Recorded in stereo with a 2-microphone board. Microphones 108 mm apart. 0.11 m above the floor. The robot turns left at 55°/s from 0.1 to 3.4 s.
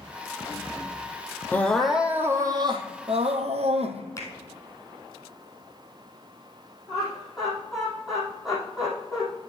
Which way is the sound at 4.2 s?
25° left (ahead or behind).